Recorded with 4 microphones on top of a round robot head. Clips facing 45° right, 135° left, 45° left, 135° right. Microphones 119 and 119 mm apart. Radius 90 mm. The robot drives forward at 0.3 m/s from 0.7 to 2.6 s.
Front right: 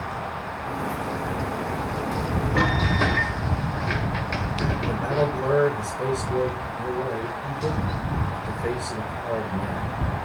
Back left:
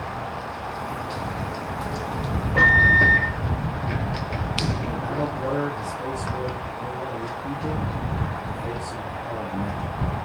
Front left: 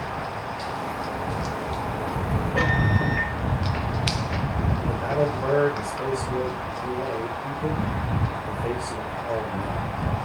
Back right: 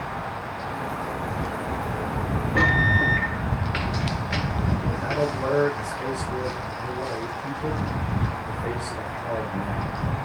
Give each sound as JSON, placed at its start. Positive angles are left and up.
{"t": 2.5, "sound": "a microwave", "azimuth_deg": -90, "distance_m": 3.0}
{"t": 4.8, "sound": "a man speaking", "azimuth_deg": -35, "distance_m": 8.5}